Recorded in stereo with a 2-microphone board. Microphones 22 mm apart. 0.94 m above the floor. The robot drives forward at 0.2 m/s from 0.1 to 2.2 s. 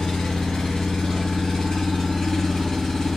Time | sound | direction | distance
0.0 | an engine running | 35° left (ahead or behind) | 1.6 m